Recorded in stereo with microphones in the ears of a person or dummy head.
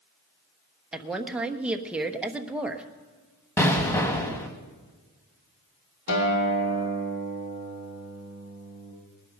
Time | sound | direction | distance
0.9 | a woman speaking | 5° right (ahead or behind) | 1.0 m
3.6 | an explosion | 10° left (ahead or behind) | 1.3 m
6.1 | a guitar | 65° left (ahead or behind) | 2.5 m